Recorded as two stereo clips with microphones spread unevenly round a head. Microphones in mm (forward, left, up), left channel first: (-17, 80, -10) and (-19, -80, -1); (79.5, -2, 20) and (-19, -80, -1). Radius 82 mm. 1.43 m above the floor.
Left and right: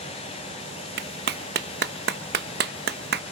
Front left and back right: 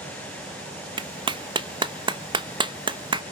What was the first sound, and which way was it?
A clap, 85° right.